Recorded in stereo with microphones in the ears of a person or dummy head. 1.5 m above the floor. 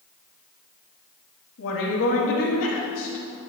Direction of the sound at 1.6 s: 80° left.